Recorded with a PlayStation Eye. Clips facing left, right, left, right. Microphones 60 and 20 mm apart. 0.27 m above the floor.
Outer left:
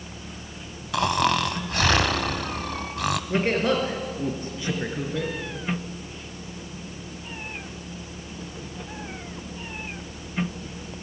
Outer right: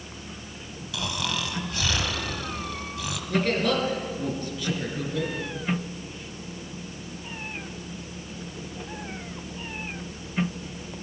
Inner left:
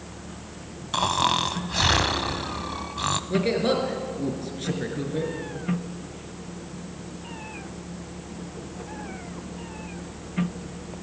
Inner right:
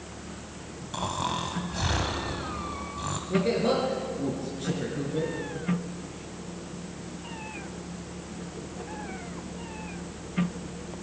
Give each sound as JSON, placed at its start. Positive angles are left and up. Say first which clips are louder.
{"t": 0.9, "sound": "snoring", "louder": "outer left 9 dB, inner left 8 dB", "side_deg": 60, "distance_m": 0.8}
{"t": 3.3, "sound": "a man speaking", "louder": "even, even", "side_deg": 25, "distance_m": 4.0}